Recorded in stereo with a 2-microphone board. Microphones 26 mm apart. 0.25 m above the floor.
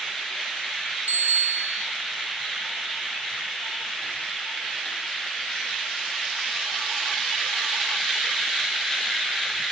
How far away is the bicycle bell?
About 3.5 m.